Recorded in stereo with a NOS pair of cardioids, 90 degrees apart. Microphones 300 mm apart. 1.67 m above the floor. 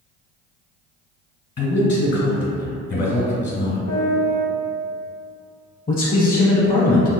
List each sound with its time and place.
1.6 s a man speaking: 50° left, 1.6 m
3.9 s a piano: 70° left, 0.9 m
5.9 s a man speaking: 30° left, 0.8 m